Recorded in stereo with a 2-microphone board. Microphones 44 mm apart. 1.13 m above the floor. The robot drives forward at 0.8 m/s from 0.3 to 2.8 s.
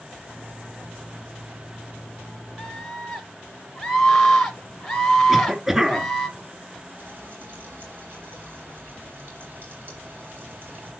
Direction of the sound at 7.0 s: 50° right (ahead or behind).